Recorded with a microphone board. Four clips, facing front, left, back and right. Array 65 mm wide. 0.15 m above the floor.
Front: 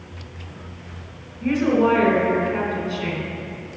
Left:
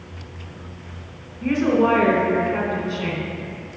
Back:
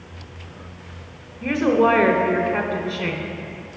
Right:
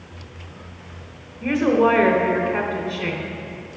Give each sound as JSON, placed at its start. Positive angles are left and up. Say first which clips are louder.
{"t": 1.4, "sound": "a woman speaking", "louder": "right 1 dB, back 1 dB", "azimuth_deg": -150, "distance_m": 1.1}